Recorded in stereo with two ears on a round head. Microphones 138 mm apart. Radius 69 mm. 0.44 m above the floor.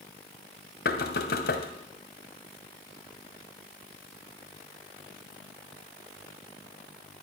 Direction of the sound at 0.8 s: 70° left (ahead or behind).